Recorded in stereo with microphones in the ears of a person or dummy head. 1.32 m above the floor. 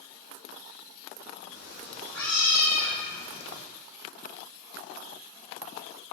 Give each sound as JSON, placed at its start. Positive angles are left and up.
{"t": 1.5, "sound": "a cat meowing", "side_deg": 25, "distance_m": 1.7}